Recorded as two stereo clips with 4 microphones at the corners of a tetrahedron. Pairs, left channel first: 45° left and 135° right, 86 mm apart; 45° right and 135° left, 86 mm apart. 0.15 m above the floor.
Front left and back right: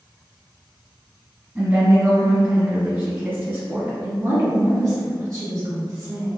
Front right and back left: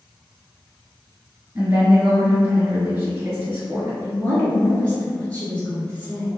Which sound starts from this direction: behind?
A woman speaking, at 1.6 s.